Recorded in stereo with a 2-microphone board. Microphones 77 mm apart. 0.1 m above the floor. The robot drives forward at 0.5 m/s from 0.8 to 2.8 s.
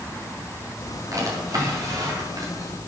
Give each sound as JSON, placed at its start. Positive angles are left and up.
{"t": 1.1, "sound": "a drawer", "side_deg": -45, "distance_m": 7.5}